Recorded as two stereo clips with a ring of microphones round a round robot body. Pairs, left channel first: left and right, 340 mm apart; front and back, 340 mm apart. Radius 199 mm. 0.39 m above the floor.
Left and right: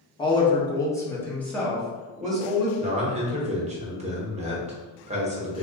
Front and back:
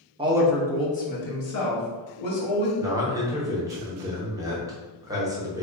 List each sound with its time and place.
0.2 s a woman speaking: 140° left, 0.8 m; by 2.7 s straight ahead, 1.6 m
2.8 s a man speaking: 120° right, 1.0 m